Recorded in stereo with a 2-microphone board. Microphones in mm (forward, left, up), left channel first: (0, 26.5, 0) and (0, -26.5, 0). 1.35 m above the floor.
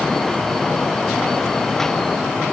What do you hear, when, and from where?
Only background noise.